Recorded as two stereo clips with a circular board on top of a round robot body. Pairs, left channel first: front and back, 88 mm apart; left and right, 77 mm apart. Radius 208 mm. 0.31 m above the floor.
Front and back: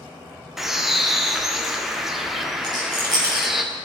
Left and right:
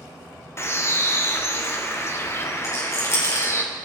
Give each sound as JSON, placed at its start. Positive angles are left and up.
{"t": 0.6, "sound": "a bird", "azimuth_deg": 95, "distance_m": 1.5}
{"t": 2.6, "sound": "a rattle", "azimuth_deg": 140, "distance_m": 3.5}